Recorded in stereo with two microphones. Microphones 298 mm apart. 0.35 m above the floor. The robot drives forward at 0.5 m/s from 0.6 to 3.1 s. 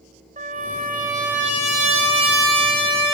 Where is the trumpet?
30° right (ahead or behind), 1.3 m; by 3.1 s 15° right (ahead or behind), 2 m.